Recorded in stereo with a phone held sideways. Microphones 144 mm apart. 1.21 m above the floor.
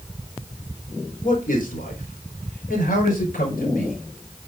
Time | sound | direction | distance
1.2 | a man speaking | 70° left (ahead or behind) | 4 m